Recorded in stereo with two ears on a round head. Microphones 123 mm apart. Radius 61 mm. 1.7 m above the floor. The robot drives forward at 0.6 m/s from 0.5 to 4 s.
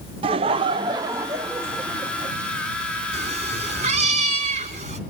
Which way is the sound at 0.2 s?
40° right (ahead or behind).